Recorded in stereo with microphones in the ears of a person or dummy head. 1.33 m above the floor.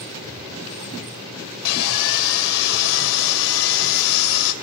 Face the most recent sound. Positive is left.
turn(degrees=75)  # may be behind; listen again after turning